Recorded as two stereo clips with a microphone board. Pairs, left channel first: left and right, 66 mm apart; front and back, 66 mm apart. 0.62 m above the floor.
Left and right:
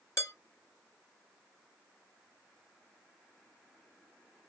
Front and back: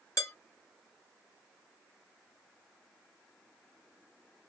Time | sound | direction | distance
0.2 | dishes clattering | 45° left | 2.5 m